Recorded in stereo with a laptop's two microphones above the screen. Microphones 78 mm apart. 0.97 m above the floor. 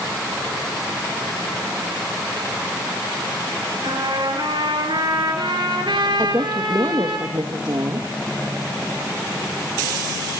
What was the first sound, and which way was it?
A trumpet, 80° right.